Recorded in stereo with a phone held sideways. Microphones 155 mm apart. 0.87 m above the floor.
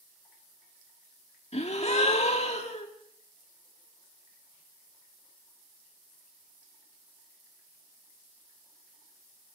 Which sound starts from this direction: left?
A gasp, at 1.5 s.